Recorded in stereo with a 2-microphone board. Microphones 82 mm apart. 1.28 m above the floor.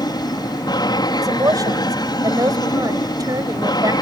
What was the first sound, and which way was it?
An aircraft, 55° left (ahead or behind).